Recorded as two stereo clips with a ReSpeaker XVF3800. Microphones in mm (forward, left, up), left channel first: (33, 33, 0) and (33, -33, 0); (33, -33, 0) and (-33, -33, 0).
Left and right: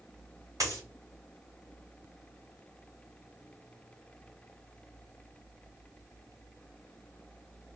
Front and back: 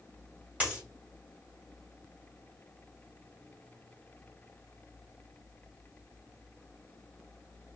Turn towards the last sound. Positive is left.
turn(degrees=-110)